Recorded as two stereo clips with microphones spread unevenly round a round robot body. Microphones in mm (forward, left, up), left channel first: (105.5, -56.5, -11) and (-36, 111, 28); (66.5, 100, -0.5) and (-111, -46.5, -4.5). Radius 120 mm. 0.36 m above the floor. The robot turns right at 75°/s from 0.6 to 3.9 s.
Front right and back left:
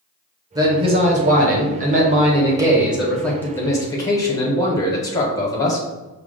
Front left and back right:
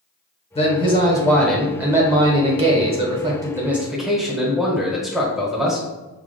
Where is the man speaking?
60° left, 0.9 m; by 5.9 s 55° right, 0.9 m.